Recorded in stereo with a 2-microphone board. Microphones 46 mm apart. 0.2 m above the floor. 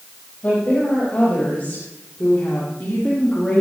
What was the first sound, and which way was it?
A woman speaking, 30° left (ahead or behind).